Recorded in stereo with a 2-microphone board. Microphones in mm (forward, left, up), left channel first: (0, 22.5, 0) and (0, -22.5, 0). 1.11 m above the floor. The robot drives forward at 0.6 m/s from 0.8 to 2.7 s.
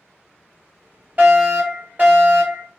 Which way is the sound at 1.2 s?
30° right (ahead or behind).